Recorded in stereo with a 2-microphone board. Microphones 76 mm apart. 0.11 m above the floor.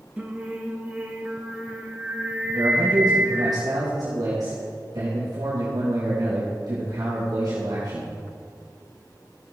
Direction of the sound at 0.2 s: 20° right (ahead or behind).